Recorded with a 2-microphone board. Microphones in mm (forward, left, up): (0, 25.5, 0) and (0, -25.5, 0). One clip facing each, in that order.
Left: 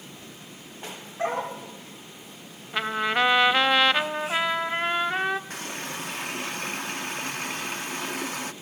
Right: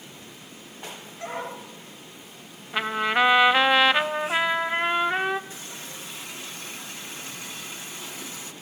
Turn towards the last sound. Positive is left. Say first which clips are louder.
# left 6 dB
turn(degrees=55)  # may be behind; listen again after turning